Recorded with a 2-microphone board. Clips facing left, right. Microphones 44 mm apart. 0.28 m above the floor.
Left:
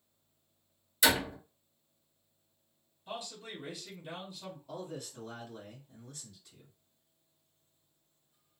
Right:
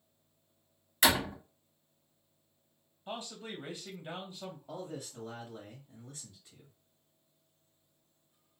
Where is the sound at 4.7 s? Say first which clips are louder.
Left 1 dB; 25° right (ahead or behind), 1.3 m.